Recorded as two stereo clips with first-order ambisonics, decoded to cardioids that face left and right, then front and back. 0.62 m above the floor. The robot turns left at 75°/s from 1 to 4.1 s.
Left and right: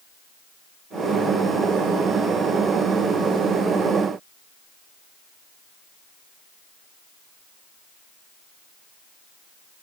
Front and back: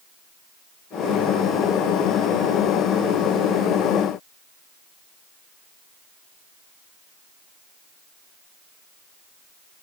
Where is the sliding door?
I don't hear a sliding door.